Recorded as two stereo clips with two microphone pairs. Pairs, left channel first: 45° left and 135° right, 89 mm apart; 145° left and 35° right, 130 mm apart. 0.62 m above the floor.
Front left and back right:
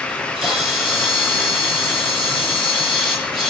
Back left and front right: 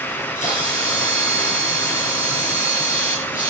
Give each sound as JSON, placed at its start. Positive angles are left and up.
{"t": 0.1, "sound": "a camera shutter", "azimuth_deg": 140, "distance_m": 7.5}